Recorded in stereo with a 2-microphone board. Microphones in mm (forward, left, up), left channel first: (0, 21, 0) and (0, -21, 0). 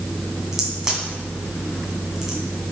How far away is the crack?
About 2 m.